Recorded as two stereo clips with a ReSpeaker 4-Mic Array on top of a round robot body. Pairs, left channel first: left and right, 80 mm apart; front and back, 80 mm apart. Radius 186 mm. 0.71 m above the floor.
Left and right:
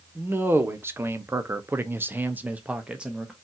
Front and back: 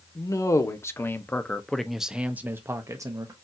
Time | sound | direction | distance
0.1 | a man speaking | 30° right | 1.3 m